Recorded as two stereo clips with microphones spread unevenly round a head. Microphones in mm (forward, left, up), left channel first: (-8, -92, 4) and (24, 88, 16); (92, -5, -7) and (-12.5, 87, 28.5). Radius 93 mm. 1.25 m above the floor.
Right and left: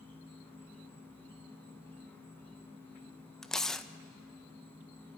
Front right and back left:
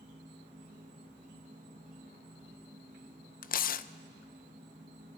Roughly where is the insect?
Behind.